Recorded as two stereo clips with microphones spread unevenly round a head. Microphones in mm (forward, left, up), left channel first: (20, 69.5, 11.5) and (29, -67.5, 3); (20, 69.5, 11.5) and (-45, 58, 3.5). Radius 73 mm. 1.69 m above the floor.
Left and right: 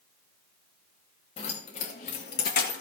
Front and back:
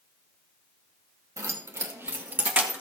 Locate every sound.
1.4 s keys jangling: 145° left, 2 m; by 2.8 s 120° left, 2 m